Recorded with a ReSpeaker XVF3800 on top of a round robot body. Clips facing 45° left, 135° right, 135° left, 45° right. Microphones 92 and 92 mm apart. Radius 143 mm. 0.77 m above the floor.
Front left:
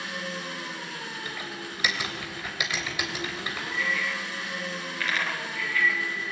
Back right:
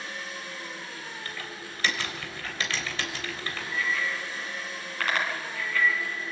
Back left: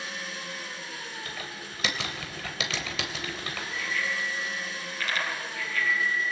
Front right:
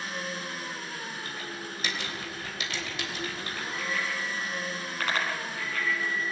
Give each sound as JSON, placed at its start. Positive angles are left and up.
{"t": 0.0, "sound": "an engine running", "azimuth_deg": 10, "distance_m": 3.0}
{"t": 1.2, "sound": "typing on a keyboard", "azimuth_deg": 125, "distance_m": 2.5}
{"t": 3.7, "sound": "a bicycle bell", "azimuth_deg": -90, "distance_m": 6.5}